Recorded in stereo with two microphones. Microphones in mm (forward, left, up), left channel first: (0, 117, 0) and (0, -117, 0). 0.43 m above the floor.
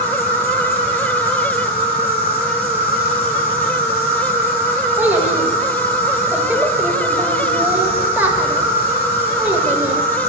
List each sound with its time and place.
0.0 s an insect: 40° left (ahead or behind), 5 m
5.0 s a child speaking: 10° right (ahead or behind), 1.4 m